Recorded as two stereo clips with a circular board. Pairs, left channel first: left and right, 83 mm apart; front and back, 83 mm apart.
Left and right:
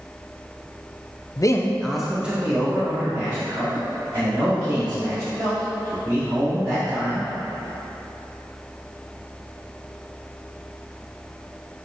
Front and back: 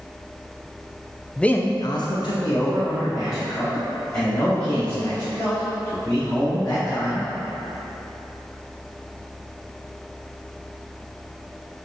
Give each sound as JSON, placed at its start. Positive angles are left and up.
{"t": 1.4, "sound": "a man speaking", "azimuth_deg": 80, "distance_m": 0.5}